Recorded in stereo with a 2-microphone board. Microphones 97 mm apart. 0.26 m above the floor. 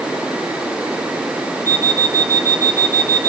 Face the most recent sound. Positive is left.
turn(degrees=0)  # may be behind; listen again after turning